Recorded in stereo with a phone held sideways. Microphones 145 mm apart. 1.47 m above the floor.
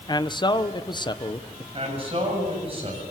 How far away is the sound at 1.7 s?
About 7.5 m.